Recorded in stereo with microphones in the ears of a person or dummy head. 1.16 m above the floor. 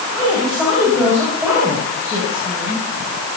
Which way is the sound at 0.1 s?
5° left (ahead or behind).